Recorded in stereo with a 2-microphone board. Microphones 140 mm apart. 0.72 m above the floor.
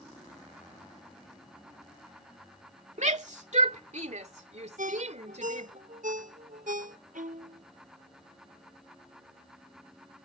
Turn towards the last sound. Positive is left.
turn(degrees=-75)  # may be behind; listen again after turning